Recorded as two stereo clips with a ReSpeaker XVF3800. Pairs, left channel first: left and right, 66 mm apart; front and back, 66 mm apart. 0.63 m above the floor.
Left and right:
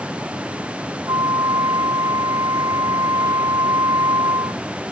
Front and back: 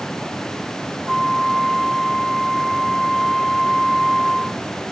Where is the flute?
90° right.